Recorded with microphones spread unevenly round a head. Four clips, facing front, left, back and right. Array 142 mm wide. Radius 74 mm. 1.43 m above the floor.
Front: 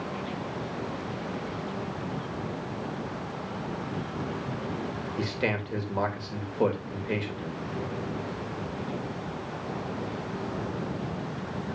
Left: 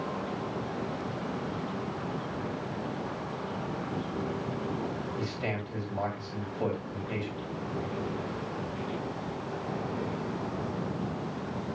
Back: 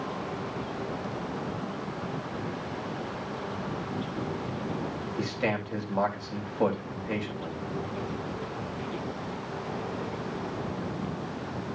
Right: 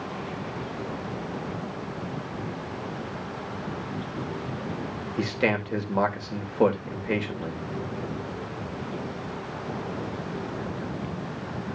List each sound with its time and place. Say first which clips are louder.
5.2 s a man speaking: right 8 dB, even; 80° right, 3 m